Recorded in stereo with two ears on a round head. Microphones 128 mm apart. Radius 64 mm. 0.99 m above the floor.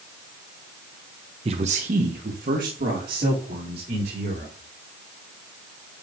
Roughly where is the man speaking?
Right.